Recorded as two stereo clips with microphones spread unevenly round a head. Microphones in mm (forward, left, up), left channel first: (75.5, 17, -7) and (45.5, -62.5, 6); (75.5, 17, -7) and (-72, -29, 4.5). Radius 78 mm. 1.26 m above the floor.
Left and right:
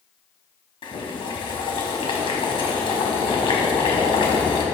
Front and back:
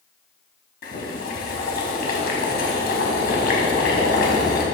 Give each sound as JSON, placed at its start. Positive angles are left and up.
{"t": 0.8, "sound": "boiling", "azimuth_deg": 50, "distance_m": 3.5}